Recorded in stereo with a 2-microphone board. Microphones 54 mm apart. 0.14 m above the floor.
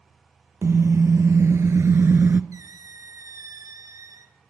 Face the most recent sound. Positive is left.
turn(degrees=-75)  # may be behind; listen again after turning